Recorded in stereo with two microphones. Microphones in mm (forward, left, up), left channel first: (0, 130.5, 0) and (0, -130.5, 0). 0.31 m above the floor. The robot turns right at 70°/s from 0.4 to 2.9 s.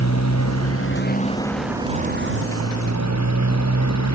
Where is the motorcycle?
95° left; by 4.2 s 90° right.